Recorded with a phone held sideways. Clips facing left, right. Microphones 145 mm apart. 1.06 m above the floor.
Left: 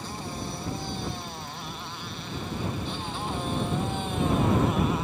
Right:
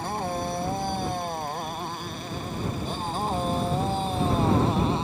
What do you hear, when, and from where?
0.0 s a motorcycle: 55° right (ahead or behind); by 5.0 s 30° right (ahead or behind)